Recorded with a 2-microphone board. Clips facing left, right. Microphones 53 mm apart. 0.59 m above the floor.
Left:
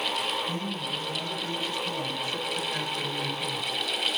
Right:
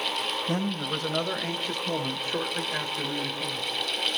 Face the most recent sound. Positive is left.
turn(degrees=0)  # may be behind; listen again after turning